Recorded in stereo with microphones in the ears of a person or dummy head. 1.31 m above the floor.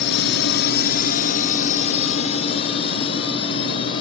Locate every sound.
0.0 s a drone: 60° left (ahead or behind); by 4.0 s 25° left (ahead or behind)